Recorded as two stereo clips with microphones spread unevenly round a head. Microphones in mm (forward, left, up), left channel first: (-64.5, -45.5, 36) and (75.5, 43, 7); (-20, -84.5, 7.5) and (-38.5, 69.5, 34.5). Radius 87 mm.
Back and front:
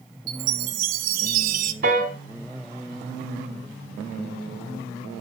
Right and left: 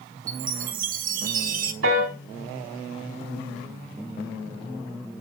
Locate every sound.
0.3 s a chime: 75° left, 1.1 m
1.8 s a piano: 80° left, 2.5 m